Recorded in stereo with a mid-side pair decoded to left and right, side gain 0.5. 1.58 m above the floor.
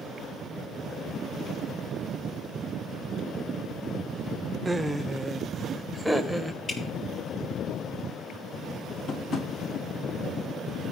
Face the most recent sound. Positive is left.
turn(degrees=50)